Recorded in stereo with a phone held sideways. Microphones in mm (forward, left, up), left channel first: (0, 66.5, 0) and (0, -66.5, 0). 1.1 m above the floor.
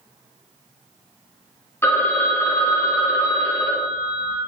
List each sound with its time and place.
1.8 s a phone ringing: 15° left (ahead or behind), 0.6 m